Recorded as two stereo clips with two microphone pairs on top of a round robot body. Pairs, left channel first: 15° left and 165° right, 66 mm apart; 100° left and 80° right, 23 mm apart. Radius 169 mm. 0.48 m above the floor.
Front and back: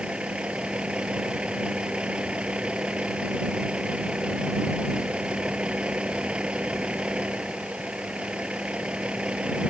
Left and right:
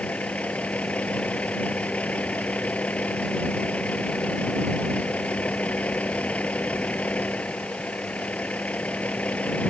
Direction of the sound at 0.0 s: 120° left.